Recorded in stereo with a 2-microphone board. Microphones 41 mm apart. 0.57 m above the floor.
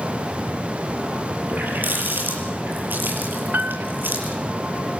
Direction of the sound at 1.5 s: 55° right (ahead or behind).